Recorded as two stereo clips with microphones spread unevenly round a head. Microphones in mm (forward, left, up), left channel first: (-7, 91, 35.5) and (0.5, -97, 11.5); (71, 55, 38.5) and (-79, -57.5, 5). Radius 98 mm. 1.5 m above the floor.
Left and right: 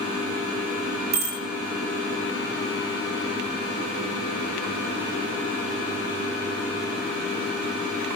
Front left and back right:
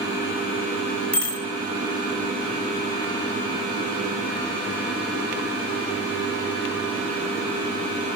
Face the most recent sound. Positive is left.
turn(degrees=-45)